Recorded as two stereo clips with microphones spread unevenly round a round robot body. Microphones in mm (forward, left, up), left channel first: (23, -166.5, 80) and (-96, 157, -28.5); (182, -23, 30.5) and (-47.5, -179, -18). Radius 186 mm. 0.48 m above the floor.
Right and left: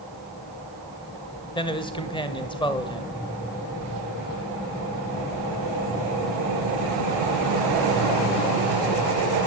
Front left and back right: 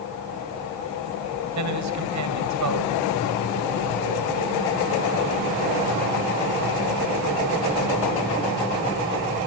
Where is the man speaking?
155° right, 2 m.